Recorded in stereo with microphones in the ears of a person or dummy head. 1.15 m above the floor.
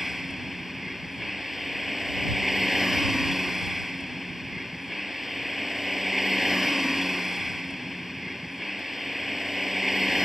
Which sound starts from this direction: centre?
A vehicle, at 0.0 s.